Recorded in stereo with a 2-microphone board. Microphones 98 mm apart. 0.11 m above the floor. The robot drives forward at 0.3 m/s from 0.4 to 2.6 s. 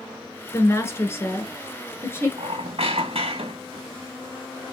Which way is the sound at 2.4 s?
85° right.